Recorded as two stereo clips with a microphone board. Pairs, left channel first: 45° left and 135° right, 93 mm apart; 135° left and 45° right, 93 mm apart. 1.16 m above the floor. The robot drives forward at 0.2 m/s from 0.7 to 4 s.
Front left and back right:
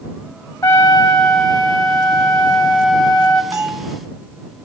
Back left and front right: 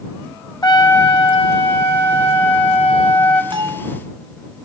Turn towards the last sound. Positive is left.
turn(degrees=-80)